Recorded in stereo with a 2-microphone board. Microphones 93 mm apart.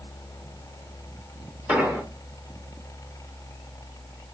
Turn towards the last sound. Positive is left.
turn(degrees=-15)  # may be behind; listen again after turning